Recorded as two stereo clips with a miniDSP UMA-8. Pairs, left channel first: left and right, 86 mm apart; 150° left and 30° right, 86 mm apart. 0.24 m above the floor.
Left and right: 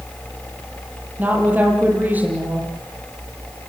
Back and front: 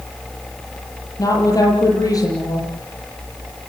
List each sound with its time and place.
1.2 s a woman speaking: 160° right, 8 m